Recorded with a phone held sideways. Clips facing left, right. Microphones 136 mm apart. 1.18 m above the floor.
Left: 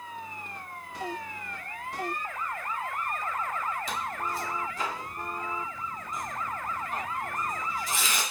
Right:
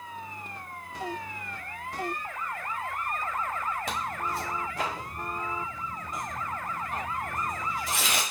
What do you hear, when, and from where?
3.9 s tearing paper: 60° right (ahead or behind), 0.8 m